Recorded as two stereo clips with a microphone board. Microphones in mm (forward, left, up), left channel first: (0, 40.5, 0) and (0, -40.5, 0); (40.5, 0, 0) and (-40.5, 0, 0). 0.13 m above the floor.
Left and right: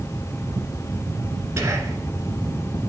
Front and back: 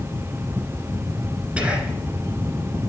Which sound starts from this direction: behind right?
Whispering, at 1.6 s.